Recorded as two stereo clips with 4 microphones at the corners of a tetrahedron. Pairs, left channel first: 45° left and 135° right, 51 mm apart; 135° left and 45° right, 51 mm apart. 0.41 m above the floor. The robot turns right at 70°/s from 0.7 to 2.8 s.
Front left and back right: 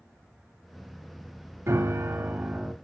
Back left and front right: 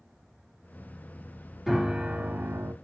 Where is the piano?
130° right, 0.7 m; by 2.7 s 55° right, 0.7 m.